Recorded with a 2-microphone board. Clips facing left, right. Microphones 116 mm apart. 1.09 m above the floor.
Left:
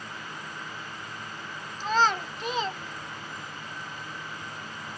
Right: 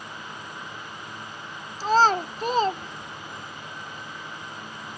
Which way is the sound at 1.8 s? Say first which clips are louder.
Right 5 dB; 35° right (ahead or behind).